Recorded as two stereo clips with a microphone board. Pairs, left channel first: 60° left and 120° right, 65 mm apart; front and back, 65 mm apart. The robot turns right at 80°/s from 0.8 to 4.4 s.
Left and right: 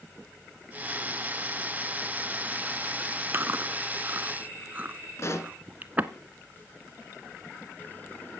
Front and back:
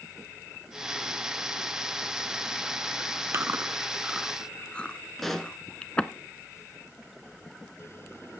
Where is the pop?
85° left, 1.3 m.